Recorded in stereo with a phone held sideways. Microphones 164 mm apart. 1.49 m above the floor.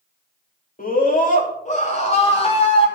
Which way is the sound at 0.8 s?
55° left (ahead or behind).